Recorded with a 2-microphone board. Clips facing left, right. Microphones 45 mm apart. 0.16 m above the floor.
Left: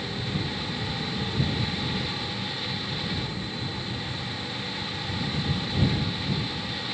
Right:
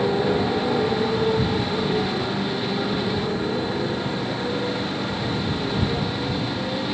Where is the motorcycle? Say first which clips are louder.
Right 11 dB; 75° right (ahead or behind).